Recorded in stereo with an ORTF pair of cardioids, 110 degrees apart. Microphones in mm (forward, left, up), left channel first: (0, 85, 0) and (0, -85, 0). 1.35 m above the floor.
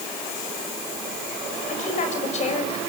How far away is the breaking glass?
No breaking glass in this recording.